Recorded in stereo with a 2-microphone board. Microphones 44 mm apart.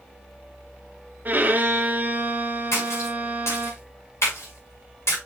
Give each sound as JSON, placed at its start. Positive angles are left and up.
{"t": 1.2, "sound": "a violin", "side_deg": -40, "distance_m": 1.6}
{"t": 2.7, "sound": "a splash", "side_deg": 85, "distance_m": 6.0}